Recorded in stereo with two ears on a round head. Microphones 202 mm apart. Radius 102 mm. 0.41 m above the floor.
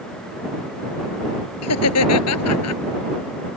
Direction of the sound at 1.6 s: 80° left.